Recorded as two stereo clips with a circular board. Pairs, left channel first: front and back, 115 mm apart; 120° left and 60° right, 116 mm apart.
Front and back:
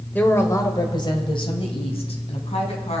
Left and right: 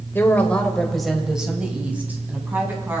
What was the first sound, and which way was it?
A woman speaking, 65° left.